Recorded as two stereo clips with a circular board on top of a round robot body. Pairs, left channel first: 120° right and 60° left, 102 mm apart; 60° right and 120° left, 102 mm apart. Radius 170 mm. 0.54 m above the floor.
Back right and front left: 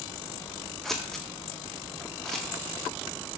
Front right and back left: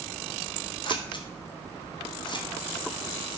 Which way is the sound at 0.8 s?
35° right.